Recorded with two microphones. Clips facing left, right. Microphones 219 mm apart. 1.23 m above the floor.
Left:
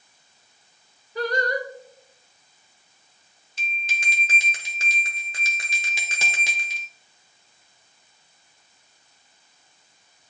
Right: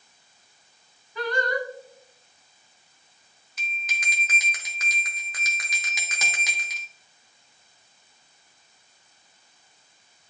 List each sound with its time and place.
1.1 s singing: 40° left (ahead or behind), 0.9 m
3.6 s a bell: 30° left (ahead or behind), 1.0 m